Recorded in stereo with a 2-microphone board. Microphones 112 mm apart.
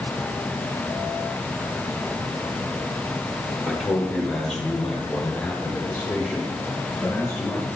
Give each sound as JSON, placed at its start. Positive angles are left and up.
{"t": 3.7, "sound": "a man speaking", "side_deg": 5, "distance_m": 1.4}